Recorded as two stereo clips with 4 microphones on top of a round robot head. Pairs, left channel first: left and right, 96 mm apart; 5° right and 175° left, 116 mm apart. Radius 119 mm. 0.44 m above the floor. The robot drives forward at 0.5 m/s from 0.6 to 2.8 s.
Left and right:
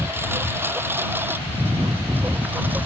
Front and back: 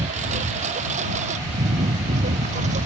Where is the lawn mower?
155° right; by 2.9 s 160° right.